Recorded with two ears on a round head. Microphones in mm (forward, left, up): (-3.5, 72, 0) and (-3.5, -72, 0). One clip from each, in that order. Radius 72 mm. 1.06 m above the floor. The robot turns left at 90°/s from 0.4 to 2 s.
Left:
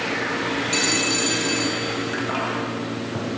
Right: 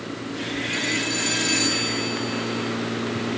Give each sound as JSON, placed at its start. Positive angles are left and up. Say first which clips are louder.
{"t": 0.7, "sound": "a phone ringing", "louder": "left 3 dB", "azimuth_deg": 50}